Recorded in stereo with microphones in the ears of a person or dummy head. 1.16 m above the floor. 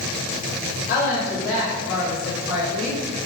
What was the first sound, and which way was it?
A woman speaking, 50° left (ahead or behind).